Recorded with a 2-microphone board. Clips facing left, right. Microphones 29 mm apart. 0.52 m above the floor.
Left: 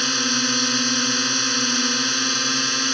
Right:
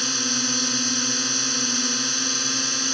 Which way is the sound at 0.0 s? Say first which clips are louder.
Left 4 dB; 20° left (ahead or behind).